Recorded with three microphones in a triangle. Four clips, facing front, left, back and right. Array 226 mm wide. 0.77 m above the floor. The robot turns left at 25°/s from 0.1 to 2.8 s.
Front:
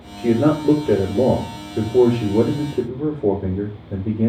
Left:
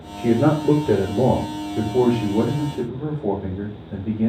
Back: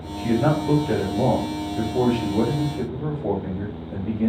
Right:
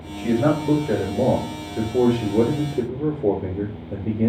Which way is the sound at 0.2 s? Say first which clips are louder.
Left 2 dB, front 4 dB; 45° left.